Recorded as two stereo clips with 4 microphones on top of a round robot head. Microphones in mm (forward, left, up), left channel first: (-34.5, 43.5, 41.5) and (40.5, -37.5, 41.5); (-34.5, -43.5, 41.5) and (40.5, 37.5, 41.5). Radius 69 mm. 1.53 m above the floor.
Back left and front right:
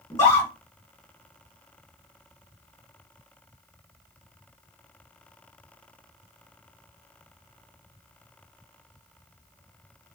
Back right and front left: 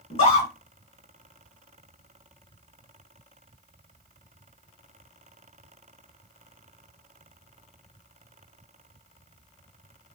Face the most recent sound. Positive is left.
turn(degrees=-165)